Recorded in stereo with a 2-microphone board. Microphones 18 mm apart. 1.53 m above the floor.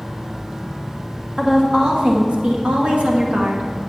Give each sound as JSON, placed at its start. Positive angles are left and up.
{"t": 1.4, "sound": "a woman speaking", "side_deg": -35, "distance_m": 1.6}